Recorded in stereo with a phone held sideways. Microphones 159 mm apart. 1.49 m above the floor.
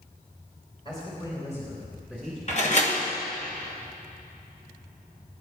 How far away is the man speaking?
About 5.5 m.